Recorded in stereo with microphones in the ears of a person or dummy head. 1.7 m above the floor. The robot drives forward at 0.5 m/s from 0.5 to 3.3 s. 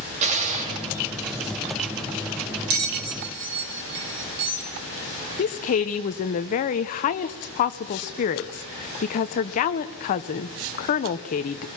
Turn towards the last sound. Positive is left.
turn(degrees=35)  # may be behind; listen again after turning